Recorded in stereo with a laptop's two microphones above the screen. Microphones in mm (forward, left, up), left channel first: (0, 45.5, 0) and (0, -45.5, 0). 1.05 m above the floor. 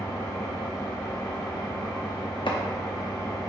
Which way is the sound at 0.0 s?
20° left (ahead or behind).